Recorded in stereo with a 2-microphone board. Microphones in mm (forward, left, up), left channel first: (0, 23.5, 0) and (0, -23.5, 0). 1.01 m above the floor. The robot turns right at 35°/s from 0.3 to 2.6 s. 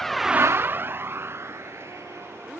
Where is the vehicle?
5° left (ahead or behind); by 2.6 s 80° right.